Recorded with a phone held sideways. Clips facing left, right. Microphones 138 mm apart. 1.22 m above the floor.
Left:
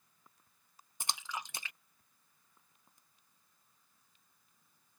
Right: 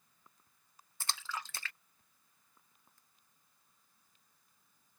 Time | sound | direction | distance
1.0 | a splash | 15° left (ahead or behind) | ?